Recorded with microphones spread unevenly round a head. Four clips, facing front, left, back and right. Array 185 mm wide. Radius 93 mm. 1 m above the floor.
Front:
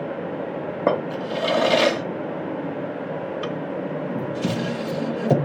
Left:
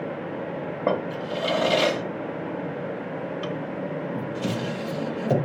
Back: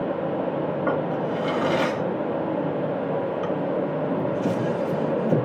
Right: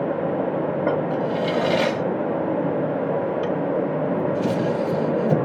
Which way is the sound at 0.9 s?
10° right.